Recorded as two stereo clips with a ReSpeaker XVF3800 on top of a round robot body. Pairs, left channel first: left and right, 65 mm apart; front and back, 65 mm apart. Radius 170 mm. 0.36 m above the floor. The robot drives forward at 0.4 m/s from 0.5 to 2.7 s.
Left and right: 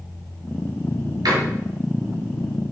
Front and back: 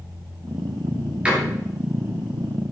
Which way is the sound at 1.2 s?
105° right.